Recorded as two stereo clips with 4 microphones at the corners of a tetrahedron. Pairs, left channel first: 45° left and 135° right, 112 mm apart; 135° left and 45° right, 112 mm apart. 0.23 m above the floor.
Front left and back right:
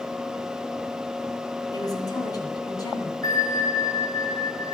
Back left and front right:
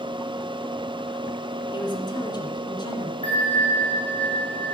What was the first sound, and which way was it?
A woman speaking, 95° left.